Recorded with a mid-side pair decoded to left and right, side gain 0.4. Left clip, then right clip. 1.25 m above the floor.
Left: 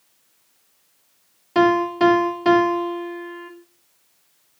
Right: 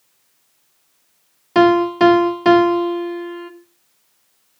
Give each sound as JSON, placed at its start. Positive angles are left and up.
{"t": 1.6, "sound": "a piano", "azimuth_deg": -45, "distance_m": 1.4}